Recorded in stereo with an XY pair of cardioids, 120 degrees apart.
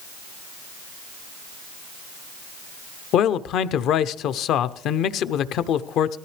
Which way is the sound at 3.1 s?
65° left.